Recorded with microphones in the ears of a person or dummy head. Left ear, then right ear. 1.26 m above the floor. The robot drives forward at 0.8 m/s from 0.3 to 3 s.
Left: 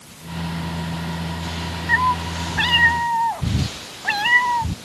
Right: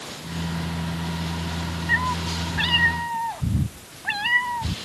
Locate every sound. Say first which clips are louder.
1.9 s a cat meowing: left 5 dB; 35° left (ahead or behind); by 4.8 s 30° left (ahead or behind)